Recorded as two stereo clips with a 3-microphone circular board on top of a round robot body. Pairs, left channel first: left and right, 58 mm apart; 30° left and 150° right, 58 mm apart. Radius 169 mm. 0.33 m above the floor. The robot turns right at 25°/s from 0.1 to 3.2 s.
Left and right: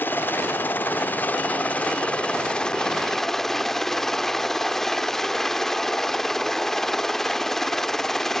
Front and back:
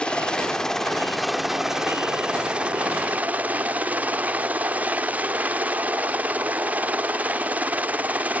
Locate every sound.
0.0 s a helicopter: 90° left; by 8.4 s 170° left